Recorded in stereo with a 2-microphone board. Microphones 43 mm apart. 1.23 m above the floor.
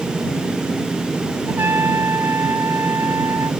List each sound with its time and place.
1.5 s a trumpet: 80° right